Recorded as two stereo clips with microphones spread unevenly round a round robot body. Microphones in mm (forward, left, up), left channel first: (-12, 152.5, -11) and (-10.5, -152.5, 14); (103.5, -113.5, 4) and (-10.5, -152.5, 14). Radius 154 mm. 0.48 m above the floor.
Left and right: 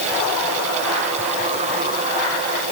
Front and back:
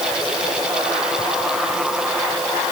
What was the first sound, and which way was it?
Only background noise.